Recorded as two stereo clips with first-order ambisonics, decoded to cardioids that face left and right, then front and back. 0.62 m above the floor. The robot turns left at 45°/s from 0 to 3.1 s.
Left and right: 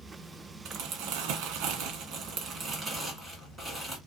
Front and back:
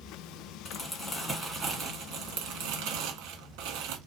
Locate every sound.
0.7 s crumpling: 65° right, 1.4 m; by 4.0 s 175° right, 1.4 m